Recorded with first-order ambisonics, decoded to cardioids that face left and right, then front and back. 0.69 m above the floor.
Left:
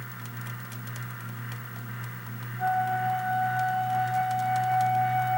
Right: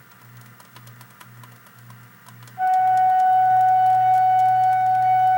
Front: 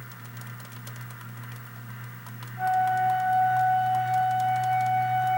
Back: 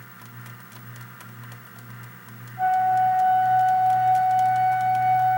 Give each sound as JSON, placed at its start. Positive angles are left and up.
{"t": 2.6, "sound": "a flute", "azimuth_deg": -105, "distance_m": 3.5}